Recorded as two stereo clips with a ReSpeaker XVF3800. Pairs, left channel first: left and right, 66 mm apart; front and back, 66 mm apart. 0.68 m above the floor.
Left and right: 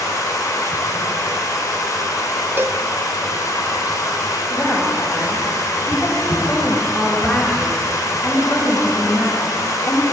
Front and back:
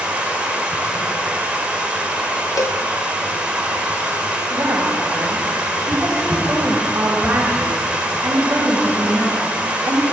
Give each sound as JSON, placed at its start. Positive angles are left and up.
{"t": 0.0, "sound": "running water", "azimuth_deg": 110, "distance_m": 1.8}
{"t": 2.6, "sound": "a cowbell", "azimuth_deg": -35, "distance_m": 0.6}
{"t": 4.5, "sound": "a woman speaking", "azimuth_deg": 135, "distance_m": 4.0}